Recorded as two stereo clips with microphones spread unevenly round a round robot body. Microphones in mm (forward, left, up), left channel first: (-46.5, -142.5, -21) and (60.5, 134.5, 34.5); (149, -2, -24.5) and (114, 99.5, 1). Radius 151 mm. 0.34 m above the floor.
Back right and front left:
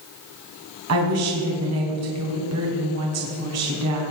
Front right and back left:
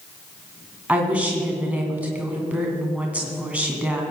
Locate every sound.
0.9 s a woman speaking: 30° left, 3 m